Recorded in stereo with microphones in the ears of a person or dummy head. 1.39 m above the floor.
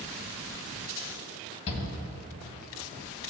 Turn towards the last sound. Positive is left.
turn(degrees=35)  # may be behind; listen again after turning